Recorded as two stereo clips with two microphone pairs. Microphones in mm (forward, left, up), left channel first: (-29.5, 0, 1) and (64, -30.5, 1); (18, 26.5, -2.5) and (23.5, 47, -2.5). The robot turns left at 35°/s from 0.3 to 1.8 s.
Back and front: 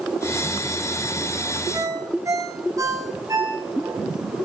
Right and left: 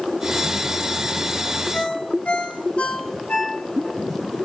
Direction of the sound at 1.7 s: 75° right.